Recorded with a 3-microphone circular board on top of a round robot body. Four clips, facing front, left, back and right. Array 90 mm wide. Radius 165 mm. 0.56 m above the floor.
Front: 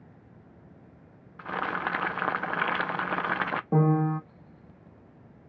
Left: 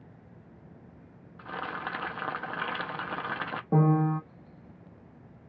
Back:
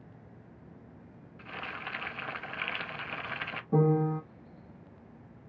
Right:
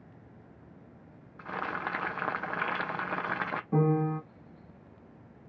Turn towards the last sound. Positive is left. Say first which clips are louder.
# left 3 dB, front 1 dB
turn(degrees=40)